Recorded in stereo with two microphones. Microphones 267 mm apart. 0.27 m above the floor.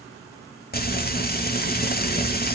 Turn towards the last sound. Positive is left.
turn(degrees=35)  # may be behind; listen again after turning